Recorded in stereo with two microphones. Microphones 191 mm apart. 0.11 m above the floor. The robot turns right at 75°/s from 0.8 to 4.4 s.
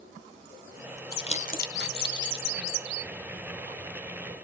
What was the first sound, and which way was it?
Crumpling, 20° left (ahead or behind).